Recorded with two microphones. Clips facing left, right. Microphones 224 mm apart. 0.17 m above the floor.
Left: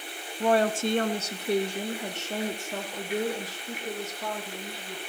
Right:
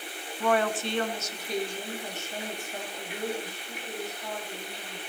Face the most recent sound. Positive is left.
turn(degrees=80)